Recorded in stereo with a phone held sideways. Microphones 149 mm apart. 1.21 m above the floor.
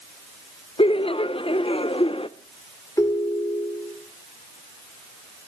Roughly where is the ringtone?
Left.